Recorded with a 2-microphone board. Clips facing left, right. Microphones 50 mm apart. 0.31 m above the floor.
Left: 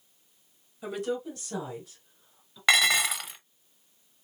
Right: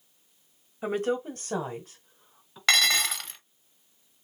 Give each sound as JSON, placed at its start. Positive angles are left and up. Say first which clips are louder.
{"t": 0.8, "sound": "a woman speaking", "louder": "right 4 dB", "side_deg": -40, "distance_m": 1.3}
{"t": 2.7, "sound": "dishes clattering", "louder": "left 1 dB", "side_deg": 10, "distance_m": 0.8}